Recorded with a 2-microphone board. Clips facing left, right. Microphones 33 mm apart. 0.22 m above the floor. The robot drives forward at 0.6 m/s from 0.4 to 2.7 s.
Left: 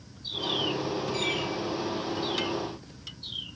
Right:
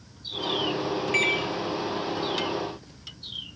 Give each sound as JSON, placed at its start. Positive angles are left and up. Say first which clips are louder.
{"t": 1.1, "sound": "a microwave", "louder": "right 8 dB", "side_deg": -65, "distance_m": 3.0}